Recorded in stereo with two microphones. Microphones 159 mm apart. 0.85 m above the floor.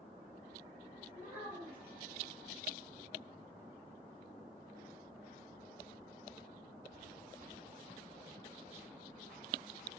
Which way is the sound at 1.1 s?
15° right (ahead or behind).